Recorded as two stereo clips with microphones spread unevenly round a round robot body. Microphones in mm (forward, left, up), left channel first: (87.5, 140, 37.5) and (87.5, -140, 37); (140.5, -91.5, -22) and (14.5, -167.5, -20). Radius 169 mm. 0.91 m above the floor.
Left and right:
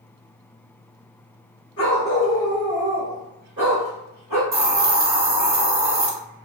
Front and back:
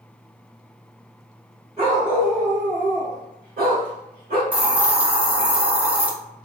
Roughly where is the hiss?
Right.